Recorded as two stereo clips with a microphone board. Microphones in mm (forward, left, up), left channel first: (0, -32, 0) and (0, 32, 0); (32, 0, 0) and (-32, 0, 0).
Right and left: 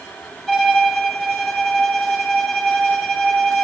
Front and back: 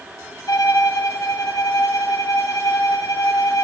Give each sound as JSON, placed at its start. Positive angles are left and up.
{"t": 0.5, "sound": "a violin", "azimuth_deg": 0, "distance_m": 1.1}